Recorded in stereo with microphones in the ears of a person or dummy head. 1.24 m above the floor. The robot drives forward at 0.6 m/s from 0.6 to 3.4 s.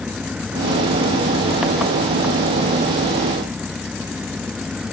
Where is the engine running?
Centre (ahead or behind).